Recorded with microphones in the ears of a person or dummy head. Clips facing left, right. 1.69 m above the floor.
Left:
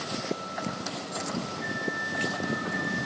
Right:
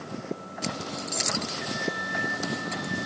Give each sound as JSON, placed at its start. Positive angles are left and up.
{"t": 1.6, "sound": "a microwave", "side_deg": -30, "distance_m": 2.0}